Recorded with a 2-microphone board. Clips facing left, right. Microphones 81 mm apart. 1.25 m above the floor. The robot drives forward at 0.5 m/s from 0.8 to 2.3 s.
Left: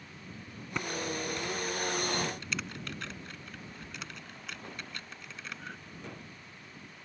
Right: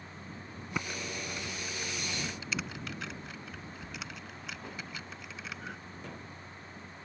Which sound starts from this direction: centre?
Typing on a keyboard, at 0.7 s.